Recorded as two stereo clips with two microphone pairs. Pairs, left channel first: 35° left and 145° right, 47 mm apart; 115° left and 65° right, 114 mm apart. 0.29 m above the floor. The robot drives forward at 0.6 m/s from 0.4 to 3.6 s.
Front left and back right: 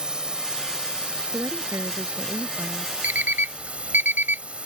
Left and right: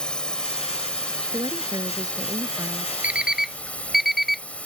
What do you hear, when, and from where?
0.0 s a drone: straight behind
1.3 s a woman speaking: 115° right; by 2.9 s 125° right
3.0 s an alarm clock: 135° right; by 4.4 s 155° right